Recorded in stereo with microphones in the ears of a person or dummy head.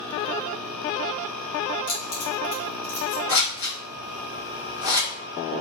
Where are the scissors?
60° left (ahead or behind), 1.6 m.